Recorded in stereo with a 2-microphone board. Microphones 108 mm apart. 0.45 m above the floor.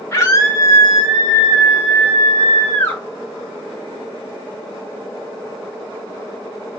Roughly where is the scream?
Left.